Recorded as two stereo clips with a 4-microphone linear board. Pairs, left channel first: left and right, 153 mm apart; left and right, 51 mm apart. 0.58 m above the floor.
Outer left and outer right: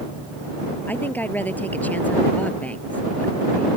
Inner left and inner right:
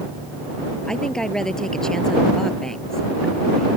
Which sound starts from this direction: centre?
A woman speaking, at 0.9 s.